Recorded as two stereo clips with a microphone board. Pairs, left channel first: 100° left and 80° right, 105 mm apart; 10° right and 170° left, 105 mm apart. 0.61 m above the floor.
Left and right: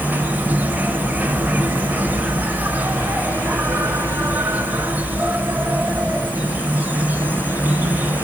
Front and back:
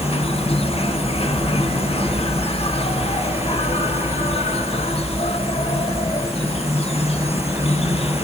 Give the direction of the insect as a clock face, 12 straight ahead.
12 o'clock.